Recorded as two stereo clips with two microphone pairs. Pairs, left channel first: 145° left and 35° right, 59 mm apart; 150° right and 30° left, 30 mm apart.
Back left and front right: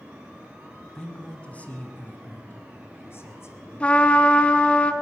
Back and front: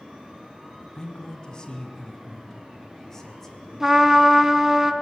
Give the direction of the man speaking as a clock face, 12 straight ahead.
5 o'clock.